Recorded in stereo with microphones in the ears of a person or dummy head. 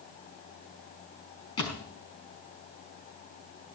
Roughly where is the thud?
Left.